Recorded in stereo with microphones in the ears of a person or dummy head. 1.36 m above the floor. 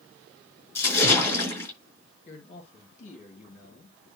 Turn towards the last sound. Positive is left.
turn(degrees=45)  # may be behind; listen again after turning